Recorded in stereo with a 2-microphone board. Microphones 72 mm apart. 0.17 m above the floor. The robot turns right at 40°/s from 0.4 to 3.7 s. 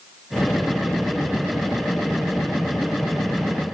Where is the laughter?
No laughter in this recording.